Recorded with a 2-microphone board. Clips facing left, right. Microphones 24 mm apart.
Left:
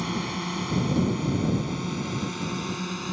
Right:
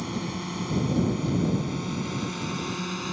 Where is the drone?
30° left (ahead or behind); by 3.1 s centre (ahead or behind).